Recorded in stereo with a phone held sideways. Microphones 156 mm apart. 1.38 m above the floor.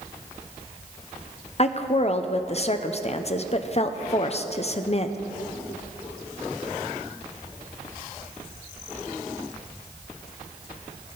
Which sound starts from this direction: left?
A woman speaking, at 1.6 s.